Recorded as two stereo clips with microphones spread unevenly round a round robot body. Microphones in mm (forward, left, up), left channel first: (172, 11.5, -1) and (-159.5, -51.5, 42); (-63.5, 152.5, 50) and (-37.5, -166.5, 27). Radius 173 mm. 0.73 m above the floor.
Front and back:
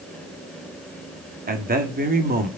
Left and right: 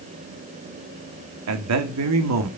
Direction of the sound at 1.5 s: 105° right.